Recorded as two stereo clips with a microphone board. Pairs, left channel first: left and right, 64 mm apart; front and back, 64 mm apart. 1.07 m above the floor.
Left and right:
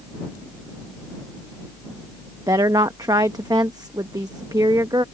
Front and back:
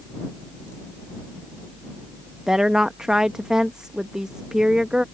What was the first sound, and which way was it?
A woman speaking, 100° right.